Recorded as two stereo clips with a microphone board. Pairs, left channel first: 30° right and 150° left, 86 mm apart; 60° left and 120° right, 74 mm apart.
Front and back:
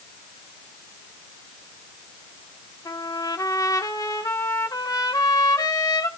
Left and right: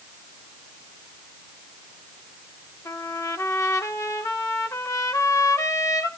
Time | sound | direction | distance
2.9 | a trumpet | 15° left | 1.5 m